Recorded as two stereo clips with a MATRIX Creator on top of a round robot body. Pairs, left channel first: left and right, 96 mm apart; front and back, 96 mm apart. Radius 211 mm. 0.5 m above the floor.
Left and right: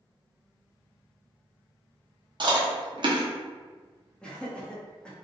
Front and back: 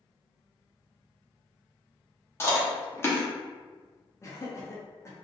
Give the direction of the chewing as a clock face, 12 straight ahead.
2 o'clock.